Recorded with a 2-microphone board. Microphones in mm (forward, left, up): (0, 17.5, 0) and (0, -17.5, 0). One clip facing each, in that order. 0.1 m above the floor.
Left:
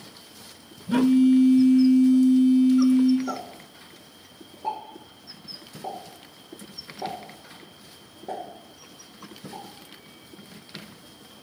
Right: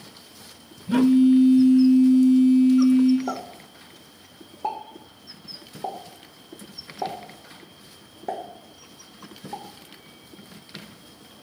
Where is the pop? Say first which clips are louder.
Right 2 dB; 80° right, 1.5 m.